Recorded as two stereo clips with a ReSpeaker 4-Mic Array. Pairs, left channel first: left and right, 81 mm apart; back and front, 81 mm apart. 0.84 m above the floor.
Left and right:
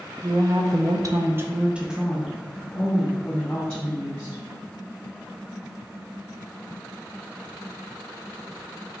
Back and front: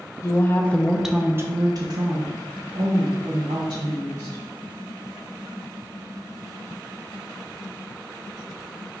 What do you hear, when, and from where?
0.2 s a woman speaking: 130° right, 0.7 m; by 4.4 s 15° left, 2 m